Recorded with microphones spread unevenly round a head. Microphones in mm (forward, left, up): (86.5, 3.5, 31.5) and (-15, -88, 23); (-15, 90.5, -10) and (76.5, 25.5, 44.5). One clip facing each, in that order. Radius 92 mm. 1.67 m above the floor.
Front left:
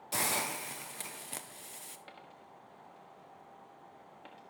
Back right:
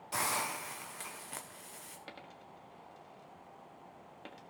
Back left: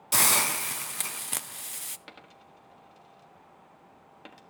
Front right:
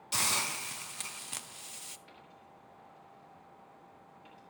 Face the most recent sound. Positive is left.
turn(degrees=170)